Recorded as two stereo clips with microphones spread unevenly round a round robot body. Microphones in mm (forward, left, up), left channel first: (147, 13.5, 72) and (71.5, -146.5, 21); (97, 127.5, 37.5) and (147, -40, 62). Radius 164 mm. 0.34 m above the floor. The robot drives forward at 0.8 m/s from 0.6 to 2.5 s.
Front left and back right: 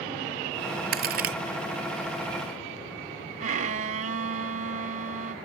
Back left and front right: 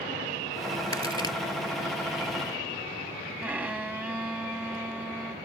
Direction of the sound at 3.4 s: 160° right.